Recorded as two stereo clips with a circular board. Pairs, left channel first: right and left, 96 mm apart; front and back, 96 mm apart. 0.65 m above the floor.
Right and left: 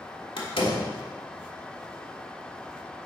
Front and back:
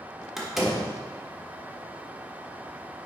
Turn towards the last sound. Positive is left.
turn(degrees=-95)